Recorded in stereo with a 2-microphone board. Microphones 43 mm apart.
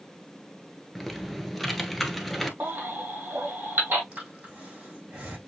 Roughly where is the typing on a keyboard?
Centre.